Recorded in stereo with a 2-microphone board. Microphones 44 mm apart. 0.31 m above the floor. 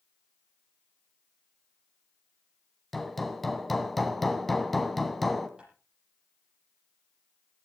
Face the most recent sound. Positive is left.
turn(degrees=-25)  # may be behind; listen again after turning